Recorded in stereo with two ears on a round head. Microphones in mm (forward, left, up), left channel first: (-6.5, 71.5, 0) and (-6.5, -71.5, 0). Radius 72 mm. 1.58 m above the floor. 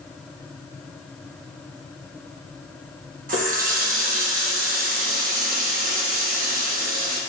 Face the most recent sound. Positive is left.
turn(degrees=-55)  # may be behind; listen again after turning